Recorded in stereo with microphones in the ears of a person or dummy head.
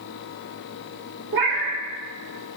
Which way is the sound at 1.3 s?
60° right (ahead or behind).